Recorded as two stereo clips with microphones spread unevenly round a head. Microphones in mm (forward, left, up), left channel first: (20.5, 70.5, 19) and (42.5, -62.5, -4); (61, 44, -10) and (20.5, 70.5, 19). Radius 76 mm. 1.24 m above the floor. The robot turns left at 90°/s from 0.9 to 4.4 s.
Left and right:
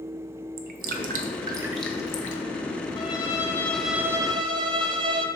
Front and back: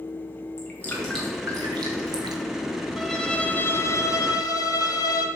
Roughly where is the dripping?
Right.